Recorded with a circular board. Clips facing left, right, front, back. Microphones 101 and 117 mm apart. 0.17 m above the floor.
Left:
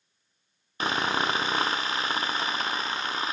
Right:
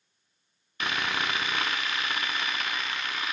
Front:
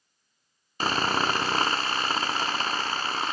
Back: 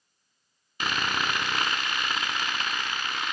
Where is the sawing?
40° left, 0.7 m.